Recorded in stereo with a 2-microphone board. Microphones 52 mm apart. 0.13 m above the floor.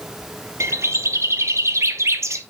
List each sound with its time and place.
0.6 s a bird: 65° right (ahead or behind), 0.7 m